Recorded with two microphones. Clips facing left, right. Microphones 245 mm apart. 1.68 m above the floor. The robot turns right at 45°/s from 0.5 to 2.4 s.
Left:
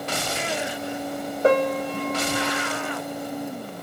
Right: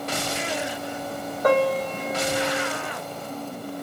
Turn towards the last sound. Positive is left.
turn(degrees=-165)